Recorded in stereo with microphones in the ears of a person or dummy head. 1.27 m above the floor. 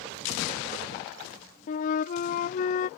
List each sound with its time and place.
1.7 s a flute: 40° left (ahead or behind)